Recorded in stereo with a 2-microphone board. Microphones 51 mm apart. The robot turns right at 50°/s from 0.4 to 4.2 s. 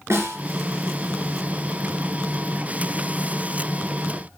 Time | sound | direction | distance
0.1 | a snare drum | 65° right (ahead or behind) | 3 m